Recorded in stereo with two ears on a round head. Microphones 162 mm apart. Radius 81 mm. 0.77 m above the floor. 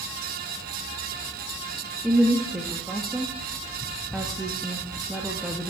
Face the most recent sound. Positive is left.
turn(degrees=-5)  # may be behind; listen again after turning